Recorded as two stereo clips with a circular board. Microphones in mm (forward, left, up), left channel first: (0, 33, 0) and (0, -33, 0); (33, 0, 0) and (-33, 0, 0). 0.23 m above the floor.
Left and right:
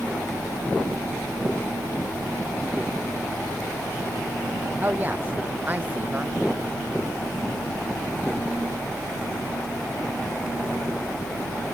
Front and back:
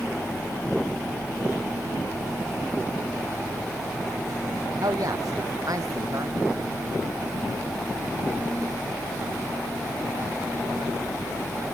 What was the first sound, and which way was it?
A woman speaking, 150° right.